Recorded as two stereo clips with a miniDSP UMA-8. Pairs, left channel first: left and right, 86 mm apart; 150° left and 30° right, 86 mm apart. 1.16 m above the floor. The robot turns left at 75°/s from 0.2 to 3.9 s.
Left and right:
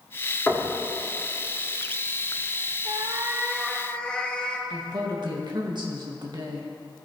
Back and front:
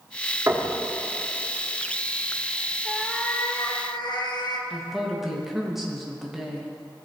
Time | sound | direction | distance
0.5 | knocking | 30° left | 1.5 m
2.9 | a cat meowing | 115° right | 0.8 m
4.7 | a woman speaking | 115° right | 1.6 m